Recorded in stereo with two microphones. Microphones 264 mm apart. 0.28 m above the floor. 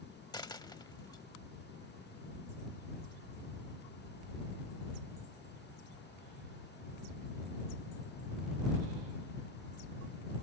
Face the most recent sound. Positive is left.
turn(degrees=15)  # may be behind; listen again after turning